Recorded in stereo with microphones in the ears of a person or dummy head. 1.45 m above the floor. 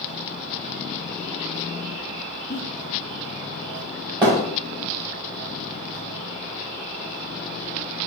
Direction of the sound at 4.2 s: 20° right (ahead or behind).